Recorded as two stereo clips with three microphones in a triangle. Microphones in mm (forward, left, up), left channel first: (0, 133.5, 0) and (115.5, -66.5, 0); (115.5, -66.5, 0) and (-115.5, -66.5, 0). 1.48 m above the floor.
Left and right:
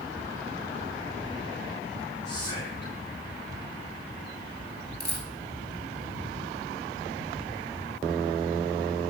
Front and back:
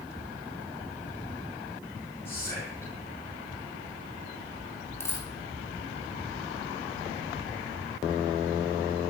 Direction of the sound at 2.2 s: 80° left.